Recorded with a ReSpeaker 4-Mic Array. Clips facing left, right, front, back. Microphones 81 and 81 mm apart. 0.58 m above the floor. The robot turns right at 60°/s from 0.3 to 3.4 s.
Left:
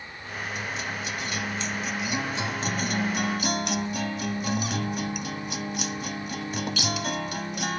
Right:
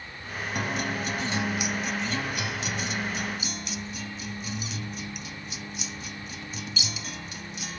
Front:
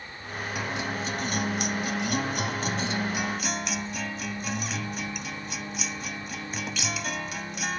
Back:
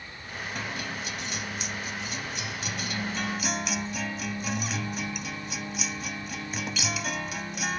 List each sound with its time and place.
0.6 s a guitar: 80° right; by 7.8 s 90° left